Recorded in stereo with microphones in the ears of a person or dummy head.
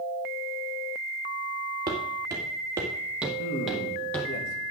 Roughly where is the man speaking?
Left.